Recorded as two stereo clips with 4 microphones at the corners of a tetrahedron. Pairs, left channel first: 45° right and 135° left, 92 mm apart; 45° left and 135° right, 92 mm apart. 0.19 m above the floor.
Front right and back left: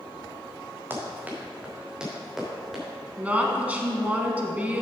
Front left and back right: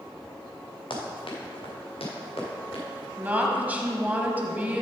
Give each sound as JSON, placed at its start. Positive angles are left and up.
{"t": 0.9, "sound": "running footsteps", "azimuth_deg": 70, "distance_m": 2.5}
{"t": 3.2, "sound": "a woman speaking", "azimuth_deg": -175, "distance_m": 1.2}